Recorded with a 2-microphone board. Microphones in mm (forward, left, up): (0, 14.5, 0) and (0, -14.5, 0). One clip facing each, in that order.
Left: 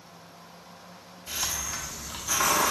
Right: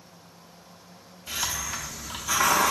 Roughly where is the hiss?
Centre.